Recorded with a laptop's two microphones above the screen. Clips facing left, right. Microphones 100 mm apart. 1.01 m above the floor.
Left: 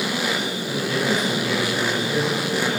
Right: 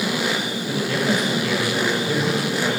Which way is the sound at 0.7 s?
70° right (ahead or behind).